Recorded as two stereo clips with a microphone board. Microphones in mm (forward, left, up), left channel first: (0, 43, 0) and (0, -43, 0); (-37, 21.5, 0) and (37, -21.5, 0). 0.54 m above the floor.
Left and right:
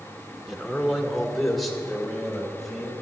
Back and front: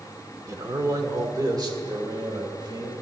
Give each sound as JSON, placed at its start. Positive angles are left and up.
{"t": 0.5, "sound": "a man speaking", "azimuth_deg": 0, "distance_m": 1.4}